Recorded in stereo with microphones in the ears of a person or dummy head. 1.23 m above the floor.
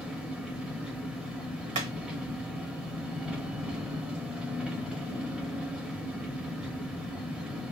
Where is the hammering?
40° right (ahead or behind), 0.9 m.